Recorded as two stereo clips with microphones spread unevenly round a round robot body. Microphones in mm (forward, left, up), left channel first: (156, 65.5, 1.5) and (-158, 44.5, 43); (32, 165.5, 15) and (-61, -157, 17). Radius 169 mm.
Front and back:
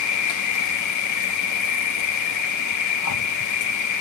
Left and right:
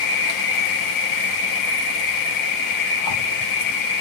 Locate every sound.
0.0 s an insect: 40° left, 1.1 m